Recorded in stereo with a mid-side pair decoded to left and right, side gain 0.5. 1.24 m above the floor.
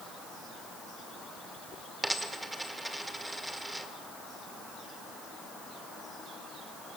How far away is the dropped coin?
About 1.9 m.